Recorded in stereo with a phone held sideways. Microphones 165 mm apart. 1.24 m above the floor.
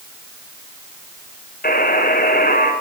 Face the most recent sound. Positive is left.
turn(degrees=65)  # may be behind; listen again after turning